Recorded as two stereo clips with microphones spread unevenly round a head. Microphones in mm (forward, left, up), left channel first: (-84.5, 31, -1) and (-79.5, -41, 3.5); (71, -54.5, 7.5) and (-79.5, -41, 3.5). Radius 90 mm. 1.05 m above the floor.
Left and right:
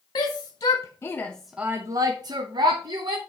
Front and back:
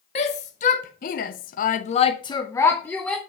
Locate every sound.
0.1 s a shout: 50° left, 1.5 m; by 3.2 s 90° right, 1.4 m